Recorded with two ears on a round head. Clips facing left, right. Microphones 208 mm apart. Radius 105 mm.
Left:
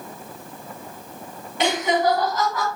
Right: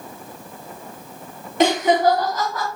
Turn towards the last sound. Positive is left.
turn(degrees=-5)  # may be behind; listen again after turning